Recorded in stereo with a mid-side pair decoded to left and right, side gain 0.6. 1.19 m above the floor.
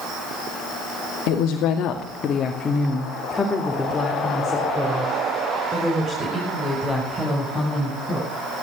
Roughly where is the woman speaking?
Left.